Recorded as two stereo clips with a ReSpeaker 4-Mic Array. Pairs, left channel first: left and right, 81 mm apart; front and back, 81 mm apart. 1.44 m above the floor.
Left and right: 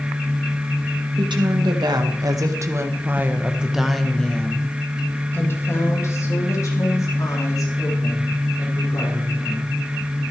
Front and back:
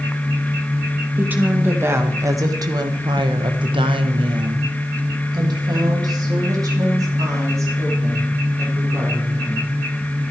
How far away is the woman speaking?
About 2.5 m.